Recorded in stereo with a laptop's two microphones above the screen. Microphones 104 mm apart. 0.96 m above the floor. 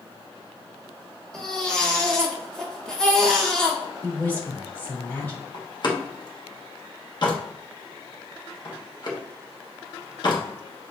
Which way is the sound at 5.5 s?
45° left (ahead or behind).